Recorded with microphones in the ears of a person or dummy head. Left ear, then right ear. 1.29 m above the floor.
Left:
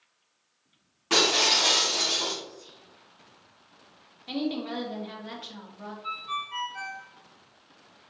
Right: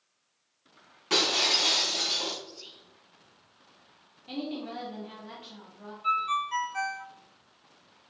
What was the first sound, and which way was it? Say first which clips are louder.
Breaking glass: left 3 dB; 5° right (ahead or behind).